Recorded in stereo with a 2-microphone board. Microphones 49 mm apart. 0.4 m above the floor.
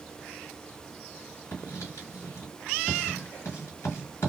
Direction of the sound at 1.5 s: 75° left (ahead or behind).